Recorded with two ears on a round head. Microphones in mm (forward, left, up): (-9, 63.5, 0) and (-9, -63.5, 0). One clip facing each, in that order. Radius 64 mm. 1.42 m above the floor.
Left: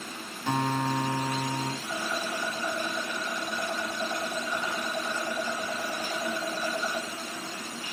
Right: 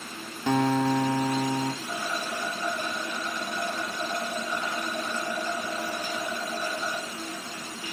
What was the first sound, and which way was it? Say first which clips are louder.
A guitar: right 5 dB; 60° right (ahead or behind).